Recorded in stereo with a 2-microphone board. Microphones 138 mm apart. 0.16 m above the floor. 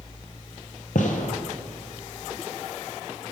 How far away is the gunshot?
About 0.8 m.